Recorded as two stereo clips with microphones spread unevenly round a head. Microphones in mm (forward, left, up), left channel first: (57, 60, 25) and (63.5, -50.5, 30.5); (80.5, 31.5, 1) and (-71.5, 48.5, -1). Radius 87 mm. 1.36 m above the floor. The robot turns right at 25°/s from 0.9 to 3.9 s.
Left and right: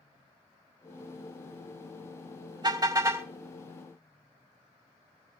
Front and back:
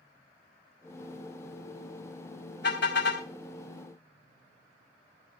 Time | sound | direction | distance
2.6 | a car horn | 40° right | 3.5 m